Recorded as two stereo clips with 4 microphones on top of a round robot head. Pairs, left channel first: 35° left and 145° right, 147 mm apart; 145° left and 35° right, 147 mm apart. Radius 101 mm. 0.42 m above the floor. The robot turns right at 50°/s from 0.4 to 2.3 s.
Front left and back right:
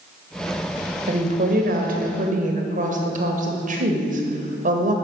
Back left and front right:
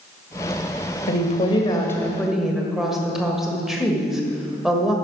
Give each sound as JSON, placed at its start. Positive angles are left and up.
{"t": 1.1, "sound": "a woman speaking", "azimuth_deg": 175, "distance_m": 1.7}